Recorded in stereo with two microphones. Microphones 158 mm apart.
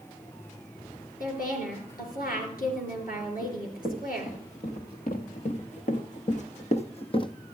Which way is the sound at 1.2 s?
70° left (ahead or behind).